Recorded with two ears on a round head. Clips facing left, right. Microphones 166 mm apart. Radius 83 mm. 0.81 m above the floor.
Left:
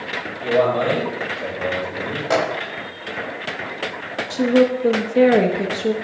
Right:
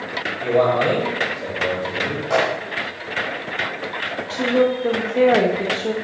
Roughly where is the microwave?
Left.